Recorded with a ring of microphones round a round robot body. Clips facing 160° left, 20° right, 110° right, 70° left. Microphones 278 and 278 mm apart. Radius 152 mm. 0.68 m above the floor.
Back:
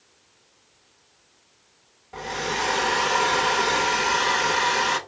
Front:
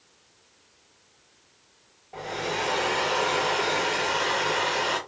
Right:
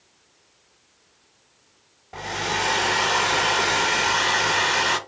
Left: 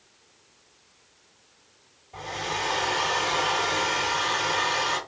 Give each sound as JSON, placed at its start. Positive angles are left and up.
{"t": 2.1, "sound": "a hair dryer", "azimuth_deg": -135, "distance_m": 0.6}